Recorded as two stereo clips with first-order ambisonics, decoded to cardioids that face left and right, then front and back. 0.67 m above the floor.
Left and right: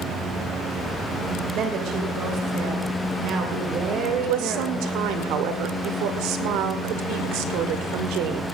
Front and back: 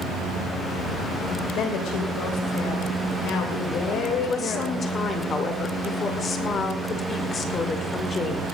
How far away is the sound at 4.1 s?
About 2 m.